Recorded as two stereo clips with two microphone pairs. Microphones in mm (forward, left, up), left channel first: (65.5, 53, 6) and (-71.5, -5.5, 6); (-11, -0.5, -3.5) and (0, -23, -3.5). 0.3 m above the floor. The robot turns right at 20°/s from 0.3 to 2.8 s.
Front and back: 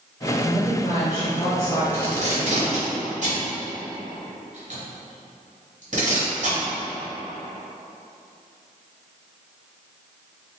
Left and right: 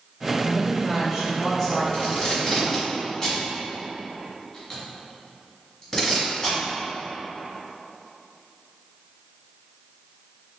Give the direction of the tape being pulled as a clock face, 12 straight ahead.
7 o'clock.